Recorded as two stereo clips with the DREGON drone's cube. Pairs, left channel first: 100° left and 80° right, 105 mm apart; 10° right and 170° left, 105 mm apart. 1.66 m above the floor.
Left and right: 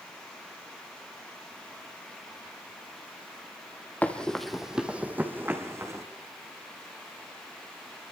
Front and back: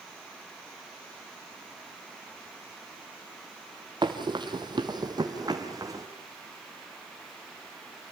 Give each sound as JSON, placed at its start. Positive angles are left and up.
{"t": 4.0, "sound": "running footsteps", "azimuth_deg": 170, "distance_m": 2.5}